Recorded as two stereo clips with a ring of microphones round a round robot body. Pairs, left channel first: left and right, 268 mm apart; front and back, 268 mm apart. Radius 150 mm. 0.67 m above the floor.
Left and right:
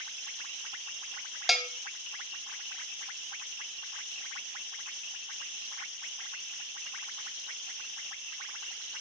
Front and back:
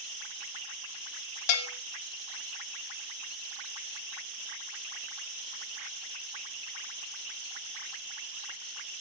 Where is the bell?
Straight ahead, 1.3 m.